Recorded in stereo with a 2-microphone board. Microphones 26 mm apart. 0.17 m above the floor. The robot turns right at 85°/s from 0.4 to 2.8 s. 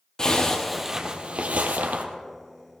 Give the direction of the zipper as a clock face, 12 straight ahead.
7 o'clock.